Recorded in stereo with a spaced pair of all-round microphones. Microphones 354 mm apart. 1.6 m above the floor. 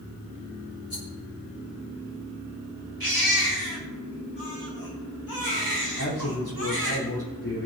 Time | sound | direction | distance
0.9 | a rattle | 60° left (ahead or behind) | 4.5 m
3.0 | a baby crying | 75° left (ahead or behind) | 4.5 m
6.0 | a man speaking | 90° left | 5 m